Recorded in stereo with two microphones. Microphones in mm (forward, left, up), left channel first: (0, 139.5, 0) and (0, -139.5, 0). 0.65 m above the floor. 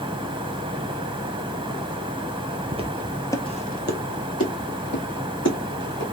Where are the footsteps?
25° right (ahead or behind), 0.7 m; by 6.0 s 70° left (ahead or behind), 2 m.